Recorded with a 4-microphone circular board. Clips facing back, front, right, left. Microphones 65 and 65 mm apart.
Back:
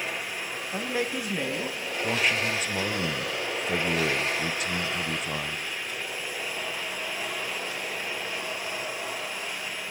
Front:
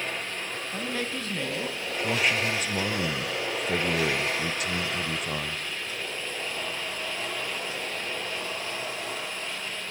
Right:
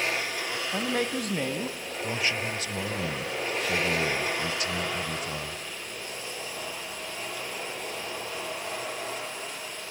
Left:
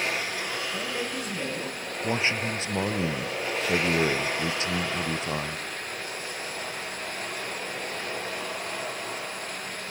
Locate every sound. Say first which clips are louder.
0.7 s a man speaking: back 3 dB, right 3 dB; 110° right, 2.5 m
2.0 s a man speaking: even, left 3 dB; 85° left, 0.9 m